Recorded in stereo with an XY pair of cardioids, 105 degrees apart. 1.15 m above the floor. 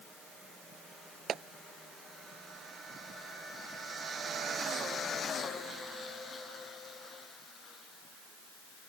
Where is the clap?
60° right.